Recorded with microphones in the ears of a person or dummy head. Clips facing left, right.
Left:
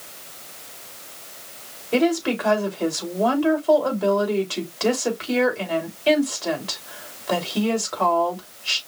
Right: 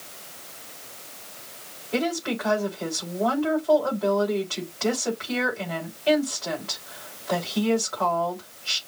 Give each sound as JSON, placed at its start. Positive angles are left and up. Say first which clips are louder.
{"t": 1.9, "sound": "a woman speaking", "louder": "left 6 dB", "side_deg": 55, "distance_m": 3.5}